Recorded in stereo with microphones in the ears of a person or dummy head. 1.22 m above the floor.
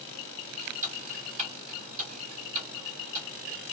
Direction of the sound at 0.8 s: 40° right (ahead or behind).